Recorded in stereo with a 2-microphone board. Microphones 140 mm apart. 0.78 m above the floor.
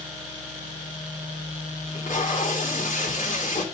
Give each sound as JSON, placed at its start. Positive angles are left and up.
{"t": 1.9, "sound": "tape being pulled", "side_deg": 65, "distance_m": 2.5}